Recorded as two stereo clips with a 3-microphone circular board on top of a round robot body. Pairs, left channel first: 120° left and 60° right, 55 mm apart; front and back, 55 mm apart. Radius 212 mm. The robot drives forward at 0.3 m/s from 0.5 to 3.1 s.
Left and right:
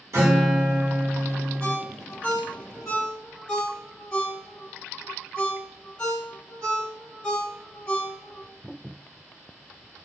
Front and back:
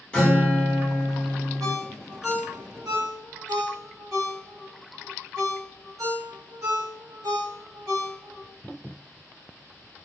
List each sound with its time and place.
0.1 s a guitar: 70° right, 1.7 m; by 1.8 s 85° right, 1.7 m
1.6 s a ringtone: 165° right, 1.4 m